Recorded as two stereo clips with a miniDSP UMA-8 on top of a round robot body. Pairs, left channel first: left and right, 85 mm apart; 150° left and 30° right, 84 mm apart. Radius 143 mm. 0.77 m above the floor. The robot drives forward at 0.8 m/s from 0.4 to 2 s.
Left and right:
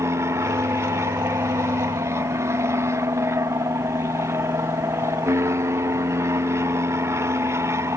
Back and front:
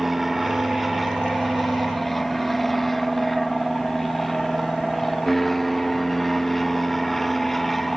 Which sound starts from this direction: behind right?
An aircraft, at 0.0 s.